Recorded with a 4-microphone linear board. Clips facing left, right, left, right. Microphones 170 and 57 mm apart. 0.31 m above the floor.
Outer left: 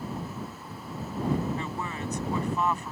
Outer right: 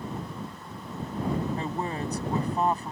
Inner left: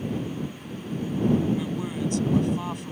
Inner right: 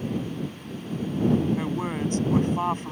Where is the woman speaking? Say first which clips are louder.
Outer right 3 dB, inner right 1 dB; 35° right (ahead or behind).